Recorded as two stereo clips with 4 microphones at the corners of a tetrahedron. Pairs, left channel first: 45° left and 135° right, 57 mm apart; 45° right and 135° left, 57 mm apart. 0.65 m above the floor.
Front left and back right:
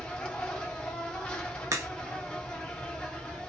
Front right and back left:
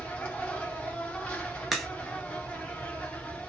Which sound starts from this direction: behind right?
A crack, at 1.7 s.